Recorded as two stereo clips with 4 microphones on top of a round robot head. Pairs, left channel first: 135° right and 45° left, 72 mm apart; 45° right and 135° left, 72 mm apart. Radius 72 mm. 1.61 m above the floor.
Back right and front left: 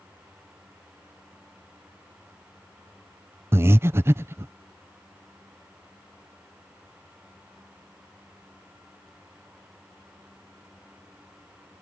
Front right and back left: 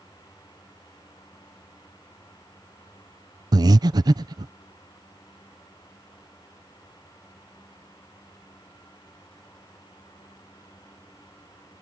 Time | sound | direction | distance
3.5 | breathing | 100° left | ?